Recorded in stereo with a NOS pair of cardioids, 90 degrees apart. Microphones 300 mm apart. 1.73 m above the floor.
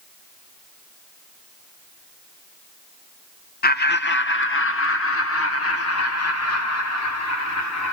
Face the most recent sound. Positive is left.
turn(degrees=60)